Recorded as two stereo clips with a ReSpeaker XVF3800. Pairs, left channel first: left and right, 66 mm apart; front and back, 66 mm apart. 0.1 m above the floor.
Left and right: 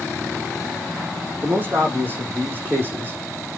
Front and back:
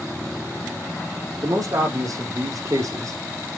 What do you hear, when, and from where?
1.4 s a man speaking: 150° right, 4 m